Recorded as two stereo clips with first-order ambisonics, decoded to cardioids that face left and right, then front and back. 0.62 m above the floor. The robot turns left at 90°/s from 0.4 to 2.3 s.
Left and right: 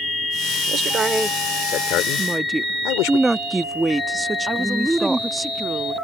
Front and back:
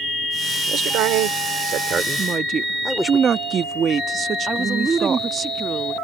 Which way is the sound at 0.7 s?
125° right.